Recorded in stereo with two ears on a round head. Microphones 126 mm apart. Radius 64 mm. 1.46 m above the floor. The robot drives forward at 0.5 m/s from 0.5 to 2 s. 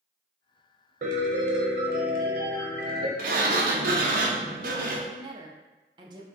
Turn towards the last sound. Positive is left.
turn(degrees=-30)  # may be behind; listen again after turning